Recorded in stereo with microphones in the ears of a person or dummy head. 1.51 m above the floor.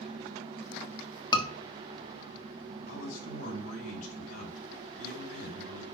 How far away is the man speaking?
About 5 m.